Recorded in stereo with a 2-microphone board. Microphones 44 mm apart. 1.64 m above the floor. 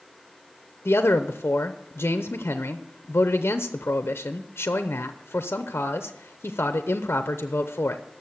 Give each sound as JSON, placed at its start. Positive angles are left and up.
{"t": 0.8, "sound": "a man speaking", "side_deg": 60, "distance_m": 0.7}